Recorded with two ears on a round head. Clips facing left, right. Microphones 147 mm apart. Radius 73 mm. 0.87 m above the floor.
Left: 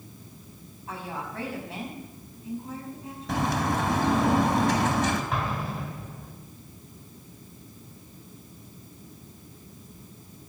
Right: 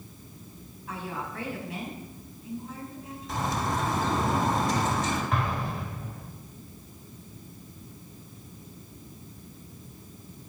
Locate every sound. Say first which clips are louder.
0.9 s a woman speaking: even; 30° left (ahead or behind), 5.5 m
3.3 s a bird: left 3 dB; 50° left (ahead or behind), 3 m
5.3 s an explosion: even; centre (ahead or behind), 2.5 m